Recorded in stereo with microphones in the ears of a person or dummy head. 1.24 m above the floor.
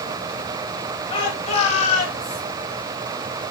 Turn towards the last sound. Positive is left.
turn(degrees=45)  # may be behind; listen again after turning